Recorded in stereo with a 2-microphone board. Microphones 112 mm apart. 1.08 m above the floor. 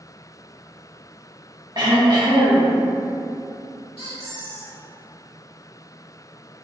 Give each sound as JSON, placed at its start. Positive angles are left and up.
{"t": 1.8, "sound": "throat clearing", "side_deg": -45, "distance_m": 1.3}
{"t": 4.0, "sound": "a squeak", "side_deg": -75, "distance_m": 1.6}